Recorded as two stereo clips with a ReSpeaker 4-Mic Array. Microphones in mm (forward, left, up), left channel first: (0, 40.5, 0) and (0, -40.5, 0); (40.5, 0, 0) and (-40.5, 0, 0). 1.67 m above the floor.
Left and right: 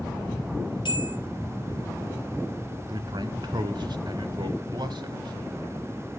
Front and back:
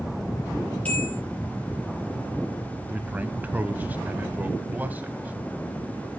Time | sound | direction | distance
0.8 | a bell | 70° left | 5.5 m
2.9 | a man speaking | 110° right | 1.1 m